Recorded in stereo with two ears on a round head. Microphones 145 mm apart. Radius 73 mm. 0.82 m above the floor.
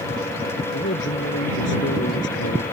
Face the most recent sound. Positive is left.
turn(degrees=85)